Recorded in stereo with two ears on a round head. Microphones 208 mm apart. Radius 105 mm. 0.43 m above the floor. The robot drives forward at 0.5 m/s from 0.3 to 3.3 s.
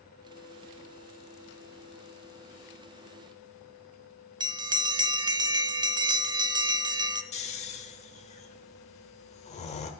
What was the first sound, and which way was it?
A bell, 20° right (ahead or behind).